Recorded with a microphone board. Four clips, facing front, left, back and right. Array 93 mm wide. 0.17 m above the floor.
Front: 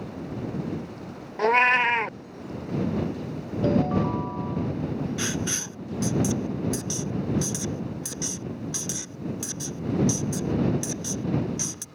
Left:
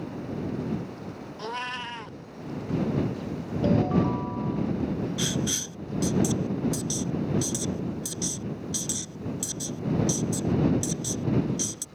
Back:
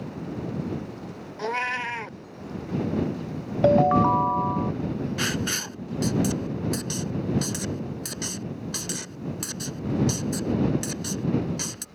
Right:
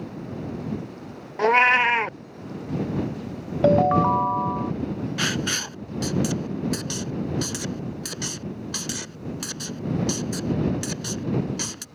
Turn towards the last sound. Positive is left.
turn(degrees=-110)